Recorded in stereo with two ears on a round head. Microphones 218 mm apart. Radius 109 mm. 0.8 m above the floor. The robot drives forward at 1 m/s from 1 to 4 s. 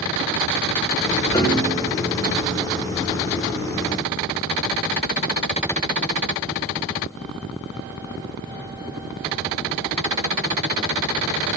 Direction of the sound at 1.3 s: 20° left (ahead or behind).